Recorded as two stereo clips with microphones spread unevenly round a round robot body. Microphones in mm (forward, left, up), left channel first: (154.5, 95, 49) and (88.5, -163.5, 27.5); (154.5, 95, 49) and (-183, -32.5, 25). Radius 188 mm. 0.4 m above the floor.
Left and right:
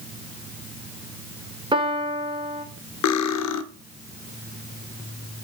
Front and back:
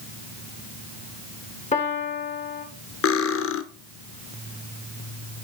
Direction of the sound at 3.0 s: 75° left.